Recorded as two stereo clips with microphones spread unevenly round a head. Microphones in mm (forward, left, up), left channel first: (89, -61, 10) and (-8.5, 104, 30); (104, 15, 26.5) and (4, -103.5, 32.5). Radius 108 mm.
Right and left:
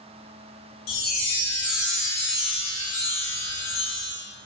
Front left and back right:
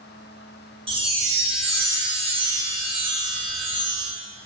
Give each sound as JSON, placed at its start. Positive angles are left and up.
{"t": 0.9, "sound": "a chime", "azimuth_deg": -75, "distance_m": 0.8}